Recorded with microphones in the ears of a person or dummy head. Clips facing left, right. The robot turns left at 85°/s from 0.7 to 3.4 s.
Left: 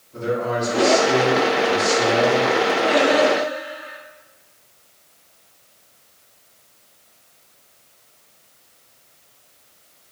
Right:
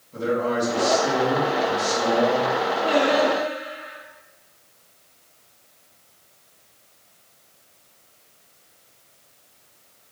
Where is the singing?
155° left, 1.6 m; by 4.0 s 105° left, 1.6 m.